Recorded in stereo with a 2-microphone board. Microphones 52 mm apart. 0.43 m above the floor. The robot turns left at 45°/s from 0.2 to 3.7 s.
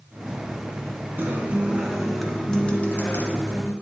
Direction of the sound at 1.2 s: 140° right.